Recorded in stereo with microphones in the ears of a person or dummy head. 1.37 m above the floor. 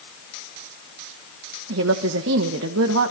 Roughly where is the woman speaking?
Right.